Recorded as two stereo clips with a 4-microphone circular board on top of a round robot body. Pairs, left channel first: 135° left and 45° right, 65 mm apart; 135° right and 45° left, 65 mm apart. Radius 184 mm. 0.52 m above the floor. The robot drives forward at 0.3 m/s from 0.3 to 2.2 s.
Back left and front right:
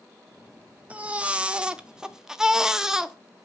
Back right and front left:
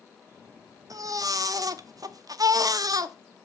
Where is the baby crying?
25° left, 1.2 m; by 3.1 s 35° left, 0.9 m.